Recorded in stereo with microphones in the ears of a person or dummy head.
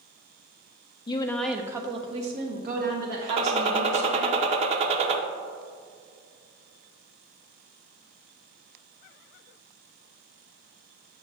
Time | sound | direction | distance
1.1 | a woman speaking | 20° left (ahead or behind) | 0.5 m
3.3 | a gunshot | 35° right (ahead or behind) | 0.6 m